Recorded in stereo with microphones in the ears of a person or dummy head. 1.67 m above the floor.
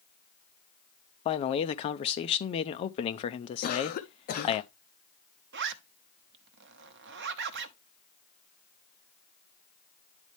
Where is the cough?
50° left (ahead or behind), 0.6 m.